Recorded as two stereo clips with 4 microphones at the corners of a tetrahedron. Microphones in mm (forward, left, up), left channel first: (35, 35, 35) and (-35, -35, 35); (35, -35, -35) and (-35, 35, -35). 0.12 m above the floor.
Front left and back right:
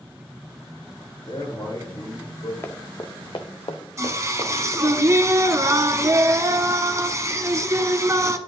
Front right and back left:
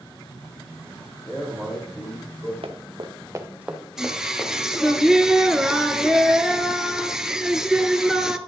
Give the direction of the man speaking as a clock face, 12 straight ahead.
11 o'clock.